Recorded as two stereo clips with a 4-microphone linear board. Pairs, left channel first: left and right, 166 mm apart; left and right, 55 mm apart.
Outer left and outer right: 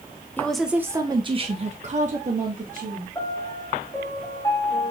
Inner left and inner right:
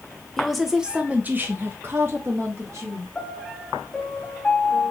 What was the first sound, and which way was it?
A woman speaking, 10° left (ahead or behind).